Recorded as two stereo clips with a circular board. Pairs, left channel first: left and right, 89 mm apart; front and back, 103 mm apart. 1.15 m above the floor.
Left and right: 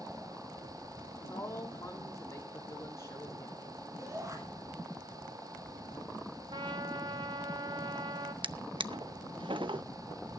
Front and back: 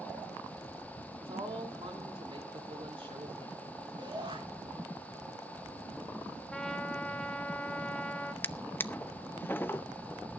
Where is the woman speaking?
145° left, 3.5 m.